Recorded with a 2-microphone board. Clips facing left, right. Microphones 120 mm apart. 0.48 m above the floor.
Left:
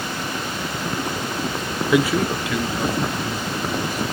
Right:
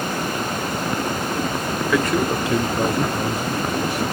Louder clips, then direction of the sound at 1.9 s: Left 2 dB; 20° left (ahead or behind).